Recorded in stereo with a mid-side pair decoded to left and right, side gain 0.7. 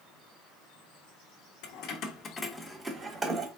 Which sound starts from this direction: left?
Keys jangling, at 1.6 s.